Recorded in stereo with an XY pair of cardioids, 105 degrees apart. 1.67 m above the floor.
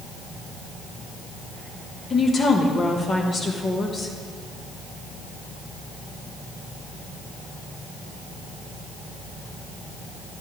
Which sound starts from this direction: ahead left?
A woman speaking, at 2.1 s.